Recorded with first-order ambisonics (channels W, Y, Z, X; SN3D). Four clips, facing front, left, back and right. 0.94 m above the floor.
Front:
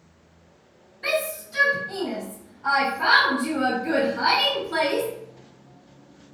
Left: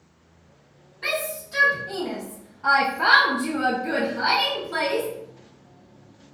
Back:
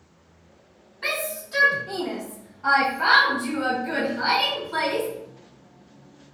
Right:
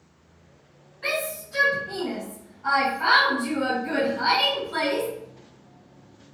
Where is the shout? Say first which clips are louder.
Left 1 dB, front 2 dB; 155° left, 1.2 m; by 5.1 s 20° left, 1.1 m.